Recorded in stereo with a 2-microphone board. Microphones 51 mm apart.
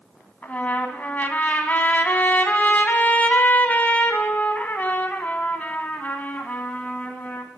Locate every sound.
0.4 s a trumpet: 35° left (ahead or behind), 1.3 m